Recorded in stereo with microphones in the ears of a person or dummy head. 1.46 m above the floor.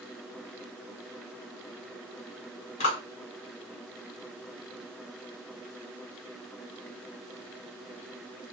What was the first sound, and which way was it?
A clap, 35° left (ahead or behind).